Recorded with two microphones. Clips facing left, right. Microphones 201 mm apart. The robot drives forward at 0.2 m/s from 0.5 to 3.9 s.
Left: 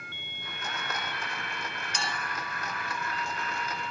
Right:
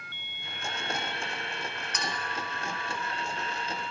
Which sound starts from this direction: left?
A clink, at 1.9 s.